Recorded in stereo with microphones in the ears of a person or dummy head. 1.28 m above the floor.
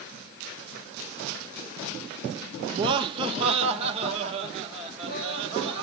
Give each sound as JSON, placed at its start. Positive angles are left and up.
{"t": 2.7, "sound": "laughter", "side_deg": -25, "distance_m": 0.5}